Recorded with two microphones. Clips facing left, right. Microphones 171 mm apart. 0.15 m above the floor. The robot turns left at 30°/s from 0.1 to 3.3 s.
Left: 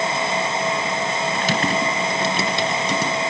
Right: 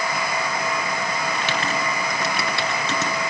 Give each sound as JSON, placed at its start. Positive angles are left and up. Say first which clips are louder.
{"t": 1.4, "sound": "typing on a keyboard", "louder": "left 4 dB", "side_deg": 45, "distance_m": 1.4}